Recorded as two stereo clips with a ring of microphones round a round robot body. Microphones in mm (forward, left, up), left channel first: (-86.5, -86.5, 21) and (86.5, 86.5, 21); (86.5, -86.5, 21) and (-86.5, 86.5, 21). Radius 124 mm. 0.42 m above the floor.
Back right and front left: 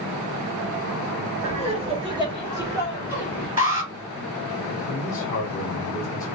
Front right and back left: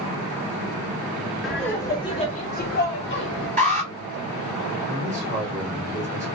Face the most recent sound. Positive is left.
turn(degrees=-155)